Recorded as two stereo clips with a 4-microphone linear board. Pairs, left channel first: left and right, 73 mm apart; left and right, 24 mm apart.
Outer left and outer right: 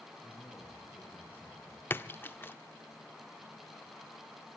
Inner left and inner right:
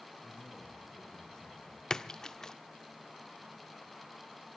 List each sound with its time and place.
0.2 s a man speaking: 25° left (ahead or behind), 6.5 m
1.9 s a splash: 30° left (ahead or behind), 0.6 m